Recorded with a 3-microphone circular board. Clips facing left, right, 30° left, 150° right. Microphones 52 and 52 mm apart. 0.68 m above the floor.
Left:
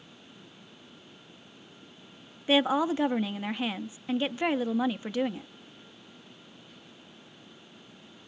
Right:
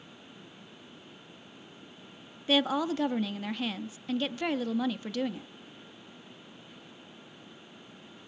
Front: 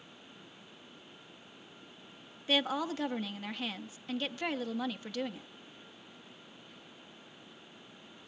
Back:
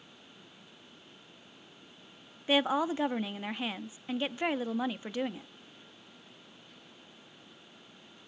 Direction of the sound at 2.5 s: 145° left.